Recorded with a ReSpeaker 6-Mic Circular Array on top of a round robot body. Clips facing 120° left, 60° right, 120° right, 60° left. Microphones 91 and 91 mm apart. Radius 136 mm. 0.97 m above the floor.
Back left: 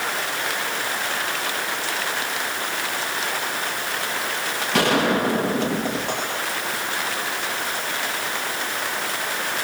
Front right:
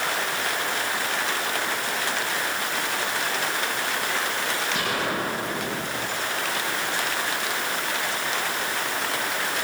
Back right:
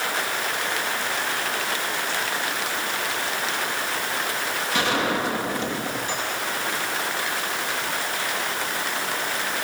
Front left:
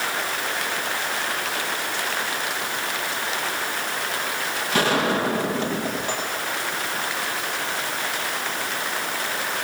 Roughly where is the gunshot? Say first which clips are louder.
Back left 12 dB, front left 3 dB; left.